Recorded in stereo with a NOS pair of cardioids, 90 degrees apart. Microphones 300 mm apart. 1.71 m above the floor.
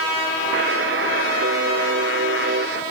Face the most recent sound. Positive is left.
turn(degrees=-40)